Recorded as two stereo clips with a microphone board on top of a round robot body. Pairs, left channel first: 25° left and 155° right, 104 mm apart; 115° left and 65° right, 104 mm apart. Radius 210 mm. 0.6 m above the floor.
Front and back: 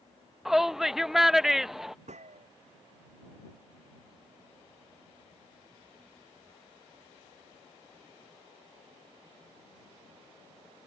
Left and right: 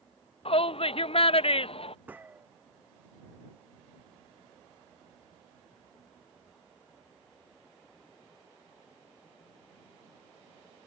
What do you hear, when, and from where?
0.5 s a shout: 115° left
2.1 s a gunshot: 140° right